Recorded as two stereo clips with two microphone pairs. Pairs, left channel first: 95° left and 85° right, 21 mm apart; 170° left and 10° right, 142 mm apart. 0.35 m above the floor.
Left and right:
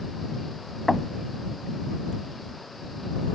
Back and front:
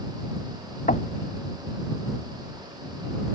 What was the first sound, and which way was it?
Knocking, straight behind.